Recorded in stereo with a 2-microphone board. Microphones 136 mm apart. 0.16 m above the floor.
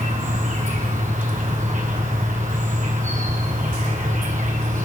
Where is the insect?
65° right (ahead or behind), 7 m.